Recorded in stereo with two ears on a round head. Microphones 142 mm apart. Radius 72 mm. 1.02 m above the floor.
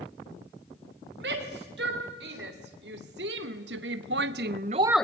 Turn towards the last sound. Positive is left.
turn(degrees=10)  # may be behind; listen again after turning